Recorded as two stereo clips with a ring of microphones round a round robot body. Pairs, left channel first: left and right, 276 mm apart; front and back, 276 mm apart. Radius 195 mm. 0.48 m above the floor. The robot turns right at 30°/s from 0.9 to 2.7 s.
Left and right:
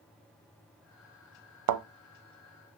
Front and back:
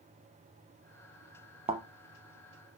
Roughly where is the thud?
Right.